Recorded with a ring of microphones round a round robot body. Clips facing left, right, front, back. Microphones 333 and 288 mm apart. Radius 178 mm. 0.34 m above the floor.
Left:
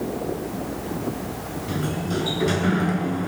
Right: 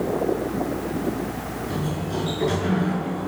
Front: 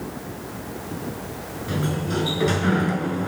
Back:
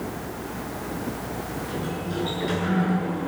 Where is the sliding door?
25° left, 6.5 m.